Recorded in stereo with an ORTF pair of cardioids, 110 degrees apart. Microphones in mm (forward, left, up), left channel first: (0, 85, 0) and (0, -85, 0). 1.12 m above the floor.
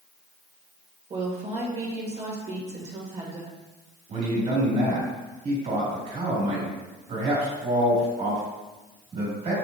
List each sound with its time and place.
1.1 s a woman speaking: 40° right, 1.5 m
4.1 s a man speaking: 45° right, 2 m